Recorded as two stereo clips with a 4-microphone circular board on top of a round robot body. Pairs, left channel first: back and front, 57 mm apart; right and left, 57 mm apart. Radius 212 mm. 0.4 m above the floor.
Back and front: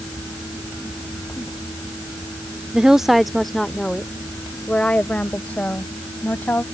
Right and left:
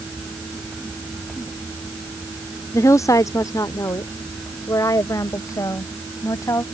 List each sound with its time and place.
2.7 s a woman speaking: 75° right; by 6.6 s 120° right